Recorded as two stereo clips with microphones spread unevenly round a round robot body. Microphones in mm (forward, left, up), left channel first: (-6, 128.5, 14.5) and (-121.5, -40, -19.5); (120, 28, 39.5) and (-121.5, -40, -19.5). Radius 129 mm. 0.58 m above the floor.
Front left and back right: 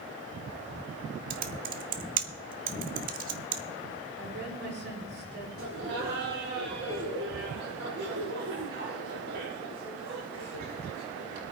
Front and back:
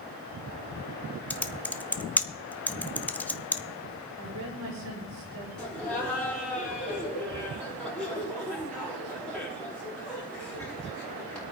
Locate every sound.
1.3 s typing on a keyboard: 75° right, 0.6 m
4.2 s a woman speaking: 155° right, 9 m
5.6 s laughter: 75° right, 5 m